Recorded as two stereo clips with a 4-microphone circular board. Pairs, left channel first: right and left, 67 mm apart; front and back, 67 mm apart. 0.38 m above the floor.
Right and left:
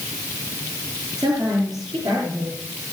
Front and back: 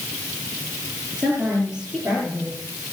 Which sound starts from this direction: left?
A woman speaking, at 1.2 s.